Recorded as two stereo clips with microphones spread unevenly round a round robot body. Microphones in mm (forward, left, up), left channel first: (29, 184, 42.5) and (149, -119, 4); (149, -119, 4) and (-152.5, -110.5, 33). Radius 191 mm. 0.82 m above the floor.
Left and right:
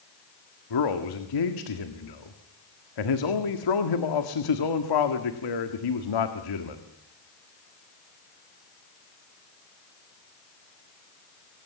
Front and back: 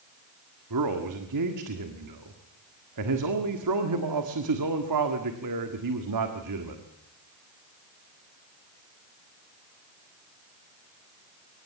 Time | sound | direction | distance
0.7 | a man speaking | 140° left | 1.7 m